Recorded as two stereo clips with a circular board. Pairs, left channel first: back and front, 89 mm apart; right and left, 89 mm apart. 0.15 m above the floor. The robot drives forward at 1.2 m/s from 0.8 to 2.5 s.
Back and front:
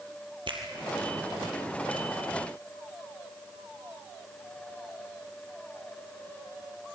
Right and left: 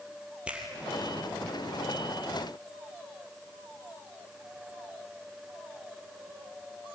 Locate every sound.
0.5 s a finger snap: 15° left, 3.5 m